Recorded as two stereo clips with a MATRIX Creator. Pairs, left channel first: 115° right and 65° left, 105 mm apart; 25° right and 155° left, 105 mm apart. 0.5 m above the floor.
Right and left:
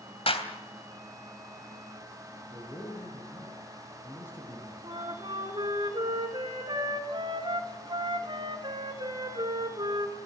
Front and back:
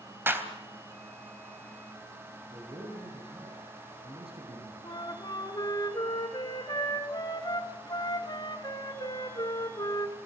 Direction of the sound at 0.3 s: 135° right.